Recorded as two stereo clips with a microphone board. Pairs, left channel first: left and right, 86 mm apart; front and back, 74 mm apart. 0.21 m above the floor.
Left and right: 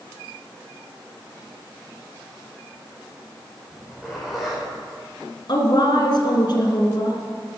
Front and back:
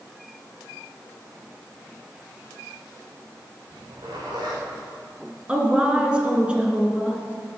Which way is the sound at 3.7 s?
Straight behind.